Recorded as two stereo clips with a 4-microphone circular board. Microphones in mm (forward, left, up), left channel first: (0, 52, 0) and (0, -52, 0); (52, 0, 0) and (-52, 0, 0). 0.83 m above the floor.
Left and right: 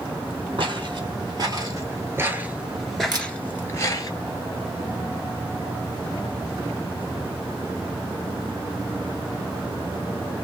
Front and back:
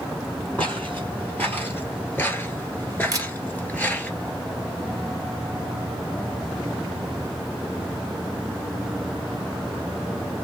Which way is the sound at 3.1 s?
130° right.